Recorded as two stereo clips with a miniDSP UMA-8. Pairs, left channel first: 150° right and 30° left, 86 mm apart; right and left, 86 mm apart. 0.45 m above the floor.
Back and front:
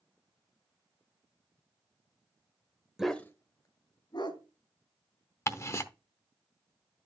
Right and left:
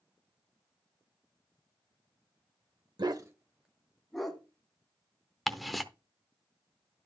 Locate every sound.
3.0 s a dog barking: 115° left, 0.7 m; by 4.4 s 175° right, 2 m
5.5 s ticking: straight behind, 0.7 m